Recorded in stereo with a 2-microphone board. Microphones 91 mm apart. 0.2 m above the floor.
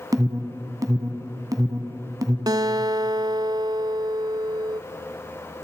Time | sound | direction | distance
0.1 | an alarm | 40° right (ahead or behind) | 1.7 m
2.5 | a guitar | 50° right (ahead or behind) | 0.5 m